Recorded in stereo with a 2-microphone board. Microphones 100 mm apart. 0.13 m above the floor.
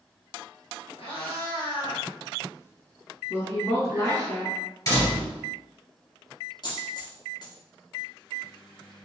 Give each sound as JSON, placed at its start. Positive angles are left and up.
{"t": 1.0, "sound": "a cat meowing", "side_deg": 65, "distance_m": 1.3}
{"t": 3.3, "sound": "a woman speaking", "side_deg": 25, "distance_m": 1.2}
{"t": 4.9, "sound": "a door slam", "side_deg": 35, "distance_m": 2.0}
{"t": 6.6, "sound": "a dropped coin", "side_deg": 45, "distance_m": 1.1}